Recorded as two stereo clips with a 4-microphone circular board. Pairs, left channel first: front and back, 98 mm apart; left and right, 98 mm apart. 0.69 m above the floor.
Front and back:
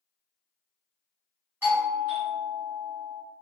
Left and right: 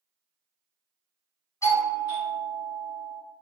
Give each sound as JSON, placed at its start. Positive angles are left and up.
{"t": 1.6, "sound": "a doorbell", "azimuth_deg": 125, "distance_m": 2.0}